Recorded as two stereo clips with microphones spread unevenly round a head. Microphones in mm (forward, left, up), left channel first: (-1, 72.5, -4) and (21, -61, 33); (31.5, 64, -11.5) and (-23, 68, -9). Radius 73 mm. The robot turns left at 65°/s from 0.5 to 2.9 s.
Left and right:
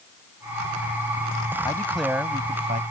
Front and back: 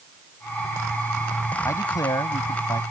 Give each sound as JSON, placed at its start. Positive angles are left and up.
{"t": 1.6, "sound": "a man speaking", "azimuth_deg": 30}